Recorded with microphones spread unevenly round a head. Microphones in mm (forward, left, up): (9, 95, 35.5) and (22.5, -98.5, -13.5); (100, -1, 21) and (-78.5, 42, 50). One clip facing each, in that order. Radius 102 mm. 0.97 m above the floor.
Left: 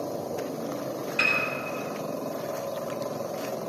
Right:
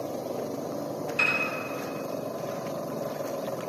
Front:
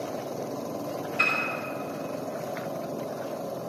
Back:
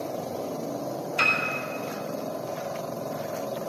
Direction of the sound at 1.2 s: 170° right.